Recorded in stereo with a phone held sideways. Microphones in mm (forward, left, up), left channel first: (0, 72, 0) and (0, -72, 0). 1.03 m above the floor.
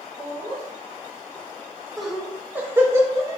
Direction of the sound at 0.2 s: 15° left (ahead or behind).